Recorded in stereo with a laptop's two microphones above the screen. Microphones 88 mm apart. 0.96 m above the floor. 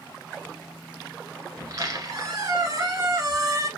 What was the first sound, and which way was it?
A squeak, 40° right (ahead or behind).